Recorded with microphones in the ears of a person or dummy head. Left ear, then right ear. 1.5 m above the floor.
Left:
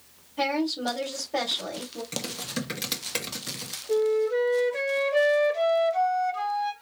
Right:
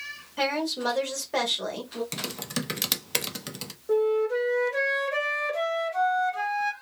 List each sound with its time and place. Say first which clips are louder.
0.4 s a woman speaking: even; 55° right (ahead or behind), 1.6 m
2.1 s typing on a keyboard: even; 15° right (ahead or behind), 0.7 m
3.9 s a flute: even; 50° right (ahead or behind), 1.8 m